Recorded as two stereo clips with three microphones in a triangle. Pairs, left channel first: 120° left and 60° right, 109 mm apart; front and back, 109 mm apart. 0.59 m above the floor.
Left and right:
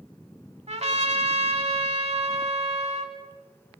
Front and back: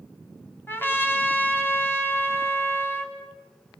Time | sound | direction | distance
0.7 | a trumpet | 70° right | 2.5 m